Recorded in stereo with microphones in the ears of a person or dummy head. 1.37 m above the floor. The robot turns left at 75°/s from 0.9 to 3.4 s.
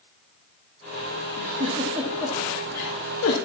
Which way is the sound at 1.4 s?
50° right (ahead or behind).